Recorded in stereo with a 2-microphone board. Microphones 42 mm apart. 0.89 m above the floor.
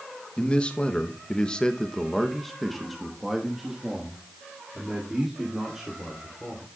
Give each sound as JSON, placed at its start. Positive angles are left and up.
{"t": 0.4, "sound": "a man speaking", "side_deg": 25, "distance_m": 1.1}